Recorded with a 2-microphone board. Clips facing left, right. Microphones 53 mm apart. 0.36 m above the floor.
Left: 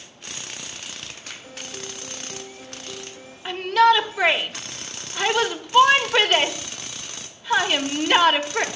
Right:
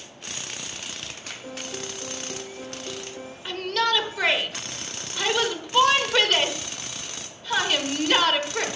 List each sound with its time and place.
1.4 s a piano: 70° right (ahead or behind), 2.5 m
3.5 s a shout: 20° left (ahead or behind), 1.0 m